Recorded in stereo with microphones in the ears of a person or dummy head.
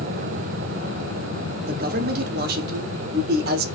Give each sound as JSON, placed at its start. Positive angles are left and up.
{"t": 1.7, "sound": "a man speaking", "side_deg": -45, "distance_m": 0.6}